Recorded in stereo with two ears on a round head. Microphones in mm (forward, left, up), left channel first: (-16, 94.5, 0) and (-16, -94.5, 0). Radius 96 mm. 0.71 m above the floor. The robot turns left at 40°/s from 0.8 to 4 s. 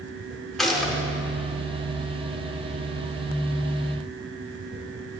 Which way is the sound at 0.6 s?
Centre (ahead or behind).